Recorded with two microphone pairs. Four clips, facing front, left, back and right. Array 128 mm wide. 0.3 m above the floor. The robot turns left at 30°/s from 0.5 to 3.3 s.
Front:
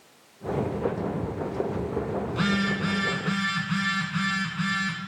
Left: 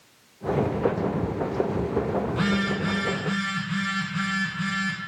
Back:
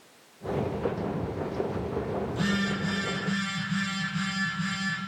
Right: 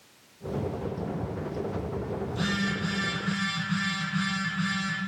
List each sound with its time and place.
2.3 s a phone buzzing: 30° left, 1.9 m; by 5.0 s straight ahead, 1.9 m